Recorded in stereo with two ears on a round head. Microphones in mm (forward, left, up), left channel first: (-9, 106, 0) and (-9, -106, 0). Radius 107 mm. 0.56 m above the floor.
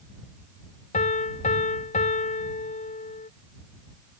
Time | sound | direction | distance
0.9 | a piano | 35° left (ahead or behind) | ?